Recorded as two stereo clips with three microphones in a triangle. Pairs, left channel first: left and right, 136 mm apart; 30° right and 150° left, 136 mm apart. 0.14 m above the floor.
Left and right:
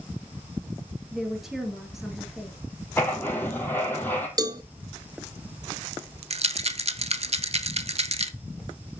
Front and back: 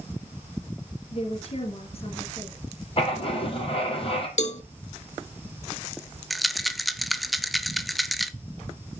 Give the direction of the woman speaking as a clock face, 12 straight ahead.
12 o'clock.